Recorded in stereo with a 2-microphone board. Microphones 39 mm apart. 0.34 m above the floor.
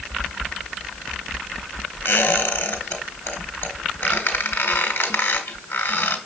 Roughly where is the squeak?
Left.